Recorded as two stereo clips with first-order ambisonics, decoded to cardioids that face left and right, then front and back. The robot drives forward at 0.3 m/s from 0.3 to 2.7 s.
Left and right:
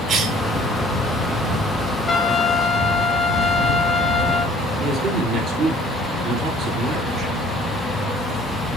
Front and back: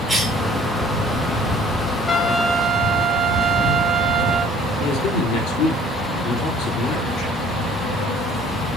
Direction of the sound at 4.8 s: 45° right.